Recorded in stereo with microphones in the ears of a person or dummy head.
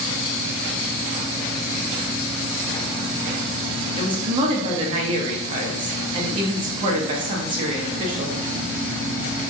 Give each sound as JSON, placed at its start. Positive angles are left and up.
{"t": 4.0, "sound": "a woman speaking", "side_deg": -30, "distance_m": 0.5}